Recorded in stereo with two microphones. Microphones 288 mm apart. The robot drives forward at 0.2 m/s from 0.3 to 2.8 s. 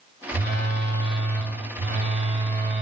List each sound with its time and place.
0.3 s a phone buzzing: 40° right (ahead or behind), 1.9 m; by 2.8 s 35° right (ahead or behind), 2 m